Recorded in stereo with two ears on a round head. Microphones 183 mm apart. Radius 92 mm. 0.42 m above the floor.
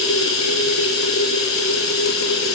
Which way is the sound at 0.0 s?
70° left (ahead or behind).